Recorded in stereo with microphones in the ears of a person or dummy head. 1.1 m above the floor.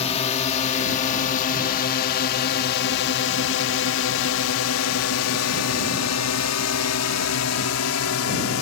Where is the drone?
30° left (ahead or behind); by 8.6 s 70° left (ahead or behind).